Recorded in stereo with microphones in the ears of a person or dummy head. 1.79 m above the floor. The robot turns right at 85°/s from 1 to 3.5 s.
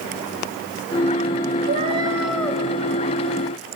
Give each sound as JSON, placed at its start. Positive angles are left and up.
{"t": 1.7, "sound": "a cat meowing", "azimuth_deg": -55, "distance_m": 3.5}